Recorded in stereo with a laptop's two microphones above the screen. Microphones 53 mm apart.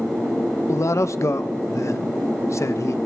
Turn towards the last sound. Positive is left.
turn(degrees=60)  # may be behind; listen again after turning